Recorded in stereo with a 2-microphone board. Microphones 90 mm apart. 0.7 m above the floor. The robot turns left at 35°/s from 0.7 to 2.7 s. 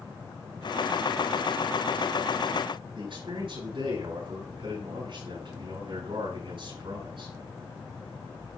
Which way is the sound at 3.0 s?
65° right (ahead or behind).